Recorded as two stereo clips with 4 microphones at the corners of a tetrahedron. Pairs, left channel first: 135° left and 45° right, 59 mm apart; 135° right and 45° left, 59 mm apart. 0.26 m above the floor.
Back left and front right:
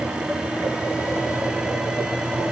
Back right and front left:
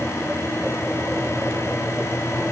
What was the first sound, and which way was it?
Only background noise.